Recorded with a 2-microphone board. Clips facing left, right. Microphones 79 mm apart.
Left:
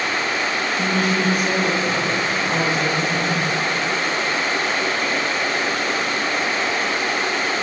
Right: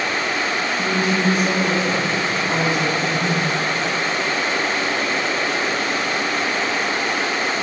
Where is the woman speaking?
60° left (ahead or behind), 2.5 m; by 3.4 s 35° left (ahead or behind), 3 m.